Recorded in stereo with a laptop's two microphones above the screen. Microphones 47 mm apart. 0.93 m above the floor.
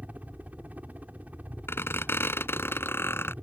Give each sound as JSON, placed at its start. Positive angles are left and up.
{"t": 0.0, "sound": "a helicopter", "side_deg": -35}
{"t": 1.7, "sound": "a squeak", "side_deg": 60}